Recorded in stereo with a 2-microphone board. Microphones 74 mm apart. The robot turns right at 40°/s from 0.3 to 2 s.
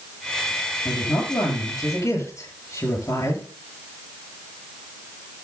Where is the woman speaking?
85° left, 7 m; by 3.4 s 130° left, 7 m.